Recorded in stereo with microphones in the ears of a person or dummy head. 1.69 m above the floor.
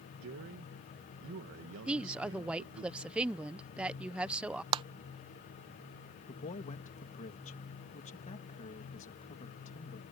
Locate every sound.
0.2 s a man speaking: 70° right (ahead or behind)
1.9 s a woman speaking: 5° right (ahead or behind)
4.7 s a clap: 25° right (ahead or behind)
6.3 s a man speaking: 40° left (ahead or behind)